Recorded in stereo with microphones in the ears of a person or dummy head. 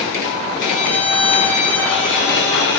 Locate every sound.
0.6 s a violin: 20° right (ahead or behind), 1.5 m